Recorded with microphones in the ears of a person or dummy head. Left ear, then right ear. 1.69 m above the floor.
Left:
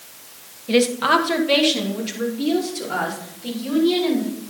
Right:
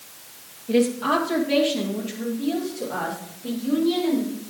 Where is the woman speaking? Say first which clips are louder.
Left 4 dB; 40° left (ahead or behind), 1.7 m; by 4.3 s 60° left (ahead or behind), 7 m.